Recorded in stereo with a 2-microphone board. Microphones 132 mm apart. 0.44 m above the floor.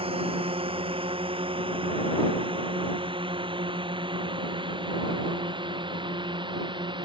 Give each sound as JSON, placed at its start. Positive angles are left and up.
{"t": 0.0, "sound": "a drone", "side_deg": -45}